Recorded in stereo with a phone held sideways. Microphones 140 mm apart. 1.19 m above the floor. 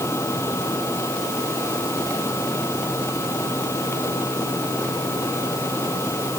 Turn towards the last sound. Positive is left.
turn(degrees=20)  # may be behind; listen again after turning